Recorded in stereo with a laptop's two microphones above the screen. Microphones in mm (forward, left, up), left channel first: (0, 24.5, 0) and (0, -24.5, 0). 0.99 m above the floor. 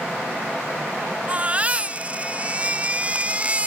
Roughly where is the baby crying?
Right.